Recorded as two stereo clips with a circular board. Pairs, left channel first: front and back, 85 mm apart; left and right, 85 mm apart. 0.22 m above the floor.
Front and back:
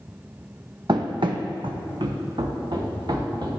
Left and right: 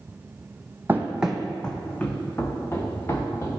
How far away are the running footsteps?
About 0.6 m.